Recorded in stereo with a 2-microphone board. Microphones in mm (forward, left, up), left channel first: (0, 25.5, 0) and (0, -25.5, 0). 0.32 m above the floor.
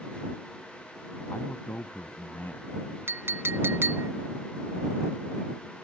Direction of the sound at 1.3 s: 45° left (ahead or behind).